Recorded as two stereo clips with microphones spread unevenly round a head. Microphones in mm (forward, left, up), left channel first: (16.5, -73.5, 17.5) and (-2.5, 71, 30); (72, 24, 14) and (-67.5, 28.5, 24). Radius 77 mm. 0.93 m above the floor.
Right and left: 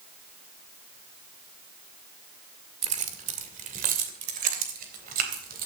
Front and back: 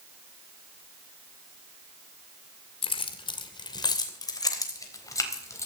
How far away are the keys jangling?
About 1.9 m.